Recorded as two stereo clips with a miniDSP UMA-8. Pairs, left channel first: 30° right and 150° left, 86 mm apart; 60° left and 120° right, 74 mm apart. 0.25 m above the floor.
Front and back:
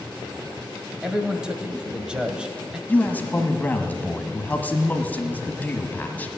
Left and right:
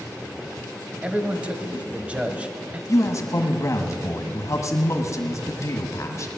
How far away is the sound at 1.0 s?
About 1.0 m.